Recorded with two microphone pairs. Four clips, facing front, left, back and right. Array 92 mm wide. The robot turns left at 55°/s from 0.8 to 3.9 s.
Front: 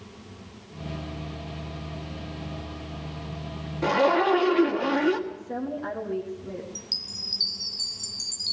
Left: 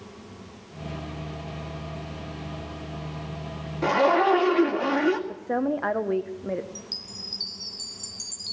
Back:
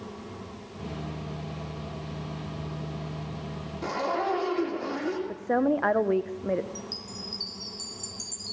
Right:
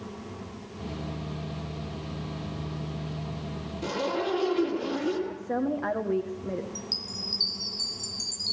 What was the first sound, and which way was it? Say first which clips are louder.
A zipper: left 10 dB, front 7 dB; 75° left.